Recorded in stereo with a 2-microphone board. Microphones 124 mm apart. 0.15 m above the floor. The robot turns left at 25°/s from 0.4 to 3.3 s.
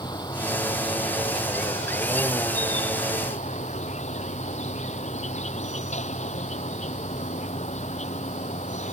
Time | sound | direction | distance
0.0 | an insect | 145° left | ?